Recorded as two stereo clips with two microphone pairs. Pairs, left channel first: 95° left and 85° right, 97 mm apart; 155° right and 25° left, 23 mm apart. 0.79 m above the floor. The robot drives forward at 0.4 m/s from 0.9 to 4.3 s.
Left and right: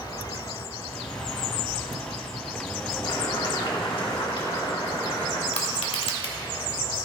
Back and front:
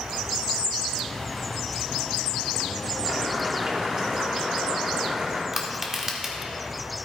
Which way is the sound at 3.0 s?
70° left.